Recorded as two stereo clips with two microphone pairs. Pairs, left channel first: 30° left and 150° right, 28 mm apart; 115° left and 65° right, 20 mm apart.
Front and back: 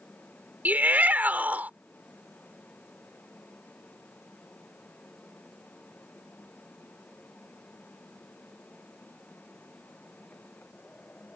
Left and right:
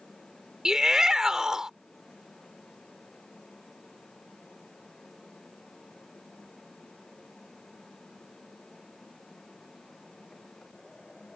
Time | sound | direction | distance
0.7 | a shout | 130° right | ?